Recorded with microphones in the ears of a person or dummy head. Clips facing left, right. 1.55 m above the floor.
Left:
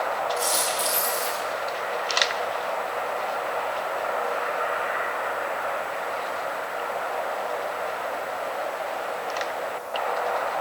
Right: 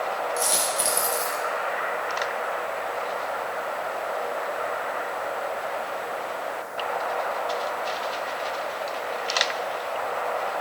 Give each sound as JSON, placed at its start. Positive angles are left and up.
{"t": 0.4, "sound": "a dropped coin", "side_deg": -20, "distance_m": 0.9}